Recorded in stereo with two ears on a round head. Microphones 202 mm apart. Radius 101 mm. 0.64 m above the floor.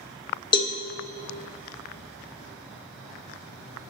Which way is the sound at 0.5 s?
20° left (ahead or behind).